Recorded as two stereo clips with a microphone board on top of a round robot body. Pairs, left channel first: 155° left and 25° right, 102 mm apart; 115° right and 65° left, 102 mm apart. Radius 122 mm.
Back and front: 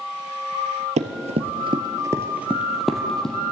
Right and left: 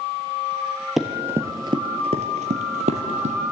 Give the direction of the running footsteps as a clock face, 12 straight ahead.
1 o'clock.